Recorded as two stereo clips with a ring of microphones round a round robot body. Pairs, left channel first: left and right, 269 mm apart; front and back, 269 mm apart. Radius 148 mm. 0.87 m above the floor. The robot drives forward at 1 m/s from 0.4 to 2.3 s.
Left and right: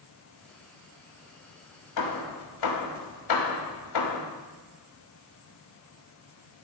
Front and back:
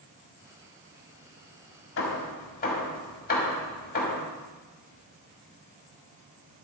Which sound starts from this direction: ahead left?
Hammering, at 2.0 s.